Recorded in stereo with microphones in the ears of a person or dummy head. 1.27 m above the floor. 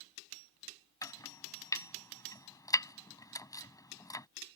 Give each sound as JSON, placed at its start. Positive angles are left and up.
{"t": 1.0, "sound": "chopping", "side_deg": 20}